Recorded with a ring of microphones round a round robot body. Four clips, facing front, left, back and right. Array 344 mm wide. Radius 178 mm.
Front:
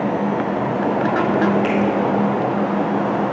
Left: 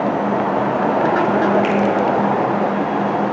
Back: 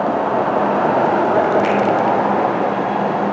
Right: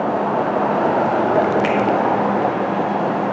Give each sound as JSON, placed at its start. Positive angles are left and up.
{"t": 1.6, "sound": "a finger snap", "azimuth_deg": -160, "distance_m": 1.7}